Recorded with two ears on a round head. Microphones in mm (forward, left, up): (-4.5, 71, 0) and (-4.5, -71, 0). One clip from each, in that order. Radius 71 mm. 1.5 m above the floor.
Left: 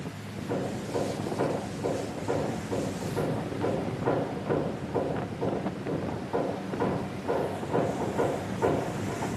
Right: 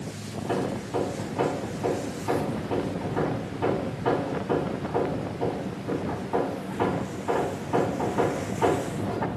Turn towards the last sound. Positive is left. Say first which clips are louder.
# right 3 dB
turn(degrees=-65)  # may be behind; listen again after turning